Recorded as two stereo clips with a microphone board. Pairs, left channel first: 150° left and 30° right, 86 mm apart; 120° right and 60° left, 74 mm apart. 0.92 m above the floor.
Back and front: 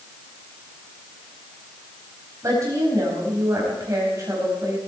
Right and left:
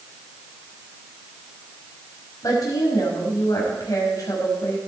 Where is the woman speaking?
80° right, 5 m.